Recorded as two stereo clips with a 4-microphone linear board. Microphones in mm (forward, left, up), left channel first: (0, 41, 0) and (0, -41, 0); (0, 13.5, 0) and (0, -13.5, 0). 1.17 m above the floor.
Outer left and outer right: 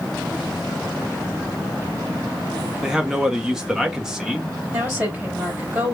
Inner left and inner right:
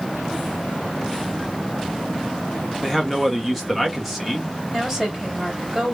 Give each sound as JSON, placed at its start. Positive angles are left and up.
{"t": 2.8, "sound": "a man speaking", "side_deg": -5, "distance_m": 1.1}
{"t": 4.7, "sound": "a woman speaking", "side_deg": -15, "distance_m": 2.5}